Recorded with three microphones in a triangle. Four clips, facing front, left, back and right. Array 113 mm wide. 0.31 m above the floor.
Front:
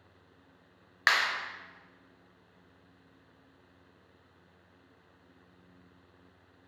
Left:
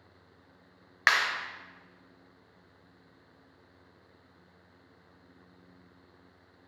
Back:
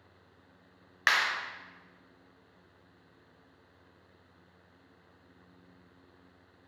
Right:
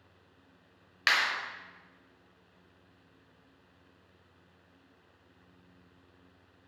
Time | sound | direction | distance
1.1 | a clap | 80° left | 0.7 m